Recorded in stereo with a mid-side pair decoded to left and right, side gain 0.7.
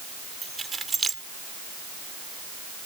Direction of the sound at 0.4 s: 20° right.